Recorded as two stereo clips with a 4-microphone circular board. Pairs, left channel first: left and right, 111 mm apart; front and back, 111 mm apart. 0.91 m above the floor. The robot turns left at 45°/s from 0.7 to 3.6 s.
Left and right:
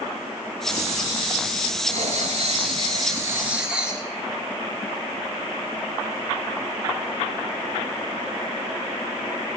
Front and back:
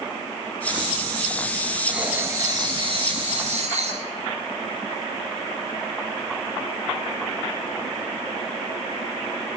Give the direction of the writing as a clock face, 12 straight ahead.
3 o'clock.